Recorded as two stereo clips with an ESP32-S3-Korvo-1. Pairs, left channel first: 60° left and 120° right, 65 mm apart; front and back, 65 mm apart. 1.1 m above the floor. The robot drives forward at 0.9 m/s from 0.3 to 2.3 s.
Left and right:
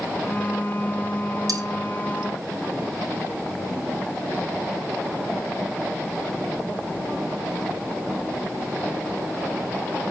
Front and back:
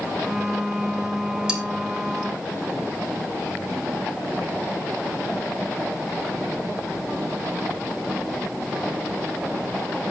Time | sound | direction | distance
1.5 | cutlery clinking | 105° right | 2.5 m